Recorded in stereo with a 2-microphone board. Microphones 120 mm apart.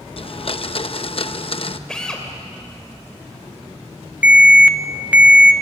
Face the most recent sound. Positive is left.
turn(degrees=-15)  # may be behind; listen again after turning